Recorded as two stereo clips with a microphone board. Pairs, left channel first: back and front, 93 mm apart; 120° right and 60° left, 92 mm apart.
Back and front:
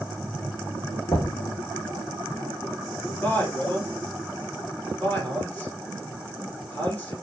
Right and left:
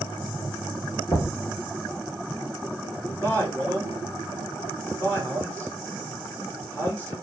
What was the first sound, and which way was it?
Knocking, 145° right.